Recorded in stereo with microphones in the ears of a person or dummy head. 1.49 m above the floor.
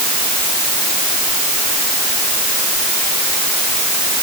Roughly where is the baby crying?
I don't hear a baby crying.